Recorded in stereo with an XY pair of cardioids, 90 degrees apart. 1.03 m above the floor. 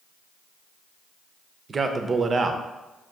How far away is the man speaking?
About 0.5 m.